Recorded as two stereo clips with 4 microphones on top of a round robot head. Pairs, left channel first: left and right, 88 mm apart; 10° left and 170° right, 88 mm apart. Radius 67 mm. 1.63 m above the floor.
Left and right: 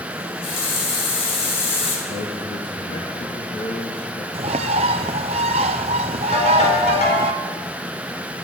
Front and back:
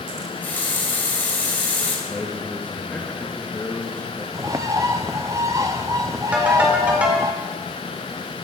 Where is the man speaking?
85° left, 2.5 m.